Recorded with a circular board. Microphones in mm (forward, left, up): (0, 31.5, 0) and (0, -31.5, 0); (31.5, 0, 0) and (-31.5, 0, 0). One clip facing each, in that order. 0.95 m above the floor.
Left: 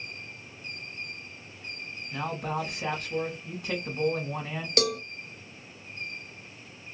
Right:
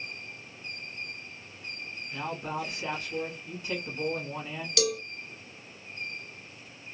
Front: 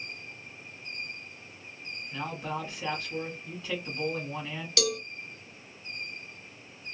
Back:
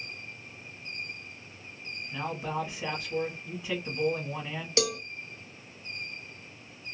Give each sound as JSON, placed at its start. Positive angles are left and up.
{"t": 2.1, "sound": "a man speaking", "azimuth_deg": 100, "distance_m": 1.4}
{"t": 4.8, "sound": "a cowbell", "azimuth_deg": 120, "distance_m": 0.5}